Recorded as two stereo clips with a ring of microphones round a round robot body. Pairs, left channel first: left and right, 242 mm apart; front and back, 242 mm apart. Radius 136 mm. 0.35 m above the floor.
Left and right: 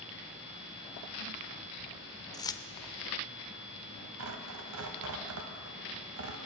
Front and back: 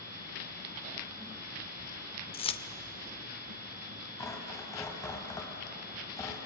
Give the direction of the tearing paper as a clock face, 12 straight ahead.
3 o'clock.